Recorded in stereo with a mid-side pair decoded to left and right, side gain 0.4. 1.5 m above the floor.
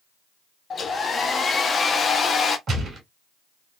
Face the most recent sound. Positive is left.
turn(degrees=-60)